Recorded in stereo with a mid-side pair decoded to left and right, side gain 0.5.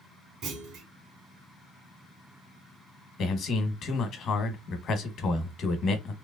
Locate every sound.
0.4 s a clunk: 70° right, 1.5 m
3.2 s a man speaking: 60° left, 1.1 m